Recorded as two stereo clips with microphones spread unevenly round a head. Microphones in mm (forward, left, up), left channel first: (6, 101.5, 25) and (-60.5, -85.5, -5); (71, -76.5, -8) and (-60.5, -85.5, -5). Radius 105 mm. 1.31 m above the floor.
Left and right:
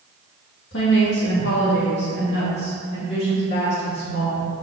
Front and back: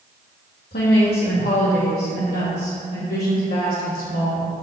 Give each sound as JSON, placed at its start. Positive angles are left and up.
{"t": 0.7, "sound": "a woman speaking", "azimuth_deg": 30, "distance_m": 2.5}